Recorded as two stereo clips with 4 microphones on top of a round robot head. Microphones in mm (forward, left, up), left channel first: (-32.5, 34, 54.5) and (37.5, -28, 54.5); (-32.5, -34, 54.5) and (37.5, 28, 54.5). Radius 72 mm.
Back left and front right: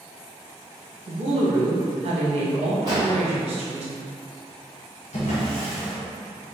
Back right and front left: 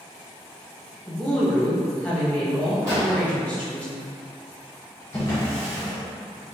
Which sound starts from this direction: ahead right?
A woman speaking, at 1.1 s.